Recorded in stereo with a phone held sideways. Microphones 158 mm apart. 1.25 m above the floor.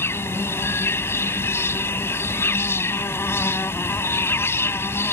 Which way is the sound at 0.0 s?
15° left (ahead or behind).